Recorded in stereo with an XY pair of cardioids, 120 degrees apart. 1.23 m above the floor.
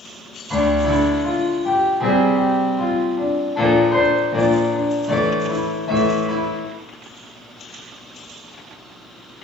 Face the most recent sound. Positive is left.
turn(degrees=15)